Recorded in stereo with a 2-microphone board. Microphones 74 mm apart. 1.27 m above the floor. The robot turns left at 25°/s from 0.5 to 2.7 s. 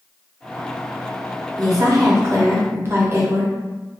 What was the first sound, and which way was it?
A woman speaking, 55° right (ahead or behind).